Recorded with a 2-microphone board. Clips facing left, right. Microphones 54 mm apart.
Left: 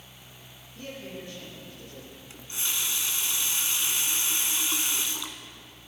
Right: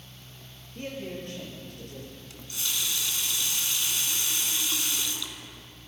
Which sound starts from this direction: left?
A running tap, at 2.3 s.